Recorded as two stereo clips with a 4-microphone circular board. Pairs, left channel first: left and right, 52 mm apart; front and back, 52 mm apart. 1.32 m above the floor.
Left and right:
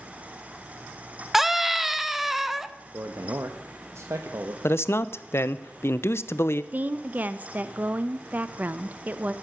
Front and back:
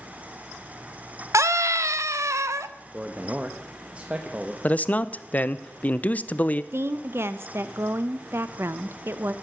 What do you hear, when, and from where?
1.3 s a scream: 175° right, 1.1 m
2.9 s a man speaking: 115° right, 1.4 m
4.6 s a man speaking: 60° left, 0.8 m
6.7 s a woman speaking: 145° right, 1.0 m